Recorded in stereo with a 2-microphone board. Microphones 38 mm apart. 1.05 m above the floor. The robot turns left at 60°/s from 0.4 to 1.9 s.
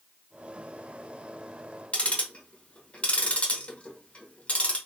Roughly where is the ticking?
Left.